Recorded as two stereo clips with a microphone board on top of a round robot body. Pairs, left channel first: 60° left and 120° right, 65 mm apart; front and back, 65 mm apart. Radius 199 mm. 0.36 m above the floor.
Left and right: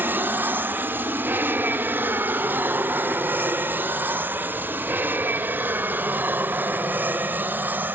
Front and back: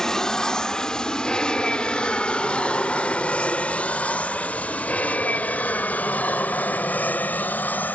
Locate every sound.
0.0 s an aircraft: 80° right; by 8.0 s 60° right